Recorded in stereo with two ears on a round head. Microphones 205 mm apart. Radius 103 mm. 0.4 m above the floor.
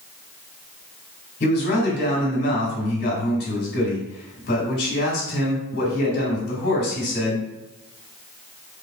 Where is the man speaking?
40° left (ahead or behind), 1.8 m.